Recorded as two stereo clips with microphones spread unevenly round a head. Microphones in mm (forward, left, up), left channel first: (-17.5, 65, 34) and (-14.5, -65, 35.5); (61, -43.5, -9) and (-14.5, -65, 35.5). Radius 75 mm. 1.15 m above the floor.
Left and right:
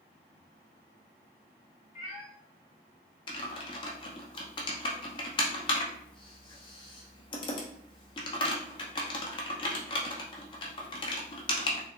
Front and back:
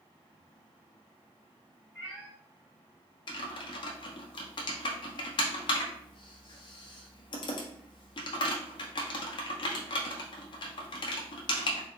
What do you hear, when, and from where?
1.9 s a cat meowing: 130° left, 1.3 m
3.3 s typing on a keyboard: 35° left, 0.7 m